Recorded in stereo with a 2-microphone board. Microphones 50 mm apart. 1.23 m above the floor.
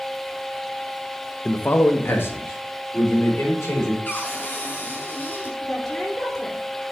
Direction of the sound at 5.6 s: 35° left (ahead or behind).